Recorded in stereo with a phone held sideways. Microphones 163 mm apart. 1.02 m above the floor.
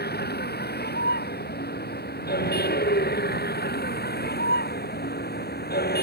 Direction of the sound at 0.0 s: 80° left.